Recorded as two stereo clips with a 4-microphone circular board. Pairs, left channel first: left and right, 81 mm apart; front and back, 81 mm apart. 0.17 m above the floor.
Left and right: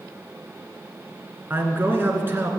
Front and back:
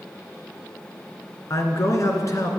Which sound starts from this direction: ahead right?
A man speaking, at 1.5 s.